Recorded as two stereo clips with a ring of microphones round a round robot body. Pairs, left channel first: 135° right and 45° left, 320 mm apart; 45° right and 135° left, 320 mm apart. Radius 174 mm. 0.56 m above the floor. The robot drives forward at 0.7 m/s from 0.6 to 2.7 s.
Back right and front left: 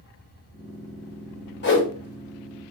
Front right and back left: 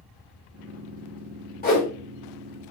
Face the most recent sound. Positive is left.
turn(degrees=-125)